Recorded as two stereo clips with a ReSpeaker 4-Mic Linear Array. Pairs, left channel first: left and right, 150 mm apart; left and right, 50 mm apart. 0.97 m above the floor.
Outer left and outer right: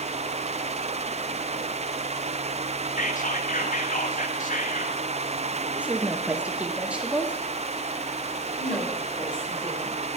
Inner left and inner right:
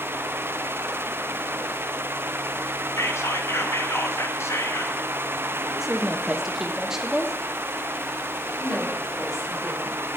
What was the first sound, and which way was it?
Whispering, 60° left (ahead or behind).